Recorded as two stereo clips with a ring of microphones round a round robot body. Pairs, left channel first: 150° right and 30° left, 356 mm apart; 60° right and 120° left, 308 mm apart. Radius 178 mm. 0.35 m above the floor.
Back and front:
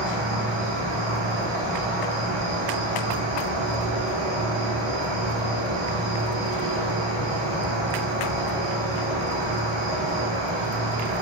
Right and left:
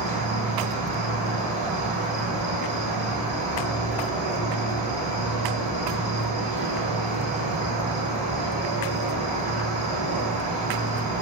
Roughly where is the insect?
Ahead left.